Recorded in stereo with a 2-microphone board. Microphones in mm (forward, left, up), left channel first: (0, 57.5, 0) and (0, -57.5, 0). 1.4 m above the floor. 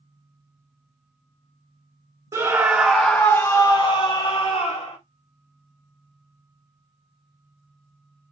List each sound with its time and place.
2.3 s a scream: 25° right (ahead or behind), 0.8 m; by 5.0 s 65° left (ahead or behind), 1.2 m